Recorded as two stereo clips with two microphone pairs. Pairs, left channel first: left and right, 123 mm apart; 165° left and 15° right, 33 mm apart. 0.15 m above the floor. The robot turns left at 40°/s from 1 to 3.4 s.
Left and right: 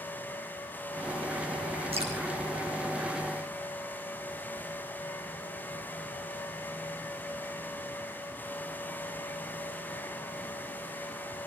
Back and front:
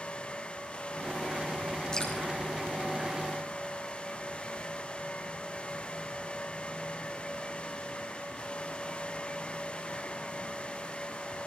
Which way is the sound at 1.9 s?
125° right.